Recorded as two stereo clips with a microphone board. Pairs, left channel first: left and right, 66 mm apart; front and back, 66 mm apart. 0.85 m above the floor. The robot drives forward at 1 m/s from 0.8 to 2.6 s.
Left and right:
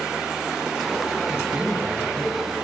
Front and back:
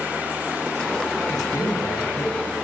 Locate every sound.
1.3 s a man speaking: 15° right, 8 m; by 2.5 s 20° right, 7 m